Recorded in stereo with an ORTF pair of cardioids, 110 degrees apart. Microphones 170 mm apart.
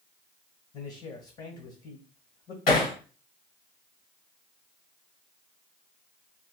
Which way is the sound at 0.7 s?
50° left.